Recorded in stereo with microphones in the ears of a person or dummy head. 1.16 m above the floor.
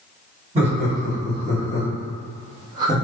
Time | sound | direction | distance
0.6 | laughter | 30° right (ahead or behind) | 1.9 m